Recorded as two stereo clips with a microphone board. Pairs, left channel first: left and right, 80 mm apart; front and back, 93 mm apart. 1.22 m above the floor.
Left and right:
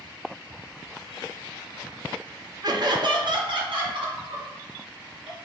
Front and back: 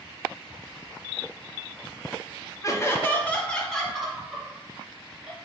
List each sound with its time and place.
2.6 s laughter: 55° right, 0.6 m; by 5.3 s 100° right, 1.8 m